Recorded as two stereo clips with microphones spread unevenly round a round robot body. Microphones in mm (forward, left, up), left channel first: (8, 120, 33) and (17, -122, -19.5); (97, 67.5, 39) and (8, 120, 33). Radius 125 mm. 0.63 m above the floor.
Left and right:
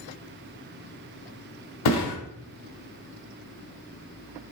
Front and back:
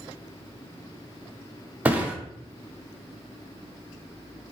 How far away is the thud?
About 1.3 m.